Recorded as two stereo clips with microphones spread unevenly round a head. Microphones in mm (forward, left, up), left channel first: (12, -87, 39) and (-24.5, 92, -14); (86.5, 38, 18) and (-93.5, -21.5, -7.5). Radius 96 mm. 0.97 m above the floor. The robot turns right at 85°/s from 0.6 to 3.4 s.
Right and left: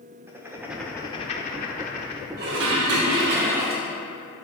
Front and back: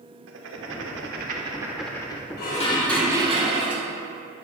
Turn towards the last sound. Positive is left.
turn(degrees=145)